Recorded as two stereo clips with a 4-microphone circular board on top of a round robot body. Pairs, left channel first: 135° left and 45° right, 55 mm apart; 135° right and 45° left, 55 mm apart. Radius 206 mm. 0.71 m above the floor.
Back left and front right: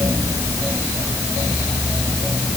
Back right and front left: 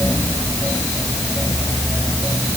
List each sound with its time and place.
Only background noise.